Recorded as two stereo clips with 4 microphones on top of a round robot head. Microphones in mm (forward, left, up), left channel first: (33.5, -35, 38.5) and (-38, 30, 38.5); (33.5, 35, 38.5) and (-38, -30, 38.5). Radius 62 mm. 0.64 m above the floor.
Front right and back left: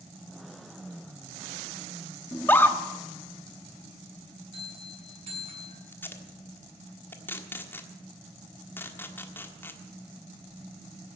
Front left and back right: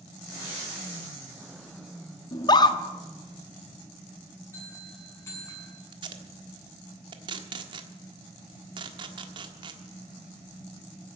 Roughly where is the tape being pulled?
Right.